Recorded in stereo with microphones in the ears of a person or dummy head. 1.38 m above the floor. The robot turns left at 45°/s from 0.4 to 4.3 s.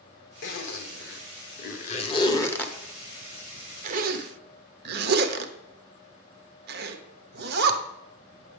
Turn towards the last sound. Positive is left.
turn(degrees=-55)  # may be behind; listen again after turning